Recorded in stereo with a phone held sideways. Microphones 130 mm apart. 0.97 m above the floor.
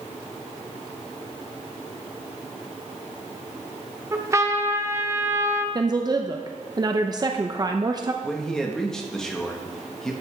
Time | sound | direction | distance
4.1 | a trumpet | 25° right (ahead or behind) | 1.0 m
5.8 | a woman speaking | 30° right (ahead or behind) | 0.7 m
8.2 | a man speaking | 5° left (ahead or behind) | 1.5 m